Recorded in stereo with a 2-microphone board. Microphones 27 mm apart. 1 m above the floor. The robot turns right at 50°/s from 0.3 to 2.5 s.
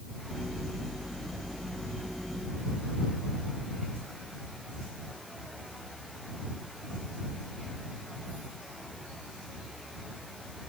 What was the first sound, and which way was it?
Only background noise.